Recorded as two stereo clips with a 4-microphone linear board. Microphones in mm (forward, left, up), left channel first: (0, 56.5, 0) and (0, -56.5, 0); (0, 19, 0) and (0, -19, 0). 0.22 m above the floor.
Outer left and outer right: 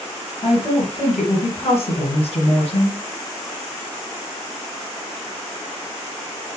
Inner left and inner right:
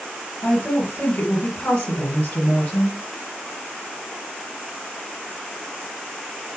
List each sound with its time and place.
0.4 s a woman speaking: 65° left (ahead or behind), 3 m